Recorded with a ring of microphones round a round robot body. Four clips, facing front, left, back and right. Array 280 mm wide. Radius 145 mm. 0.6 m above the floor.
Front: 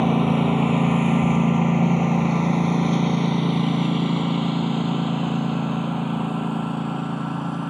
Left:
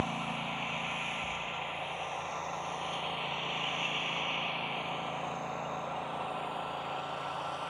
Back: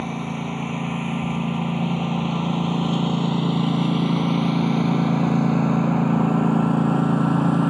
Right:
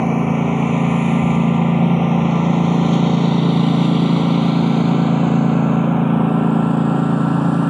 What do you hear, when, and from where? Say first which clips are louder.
0.0 s a lawn mower: right 18 dB, front 9 dB; 60° right; by 7.7 s 115° right